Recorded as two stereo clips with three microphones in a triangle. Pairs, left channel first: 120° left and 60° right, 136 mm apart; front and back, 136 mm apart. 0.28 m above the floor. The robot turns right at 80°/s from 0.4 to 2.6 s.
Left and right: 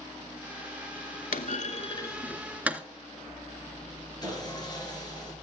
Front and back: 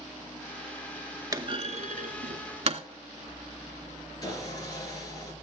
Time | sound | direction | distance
1.3 | a clunk | 120° left | 0.6 m
4.2 | sawing | 60° left | 3.5 m